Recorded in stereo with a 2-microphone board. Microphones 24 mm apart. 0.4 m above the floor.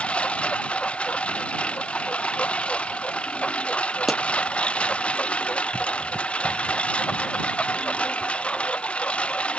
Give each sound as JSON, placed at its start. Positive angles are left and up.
{"t": 0.0, "sound": "a lawn mower", "side_deg": 55}
{"t": 4.1, "sound": "a pop", "side_deg": -10}